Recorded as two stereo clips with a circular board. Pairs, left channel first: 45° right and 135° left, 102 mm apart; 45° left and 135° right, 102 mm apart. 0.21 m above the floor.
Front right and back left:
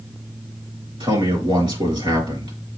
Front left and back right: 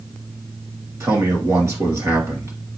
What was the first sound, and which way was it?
A man speaking, 165° left.